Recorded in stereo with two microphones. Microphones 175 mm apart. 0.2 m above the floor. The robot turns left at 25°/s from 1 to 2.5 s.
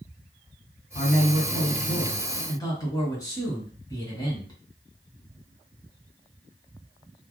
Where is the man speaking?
60° left, 2 m; by 4.5 s 25° left, 2 m.